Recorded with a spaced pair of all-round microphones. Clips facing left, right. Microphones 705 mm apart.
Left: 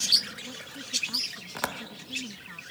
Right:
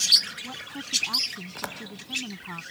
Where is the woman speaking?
85° right.